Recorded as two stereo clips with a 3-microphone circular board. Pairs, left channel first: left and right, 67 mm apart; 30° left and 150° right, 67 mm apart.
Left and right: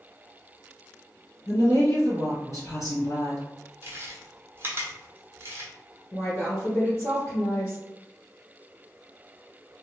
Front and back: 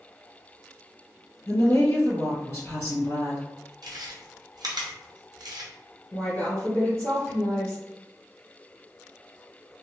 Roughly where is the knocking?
I don't hear knocking.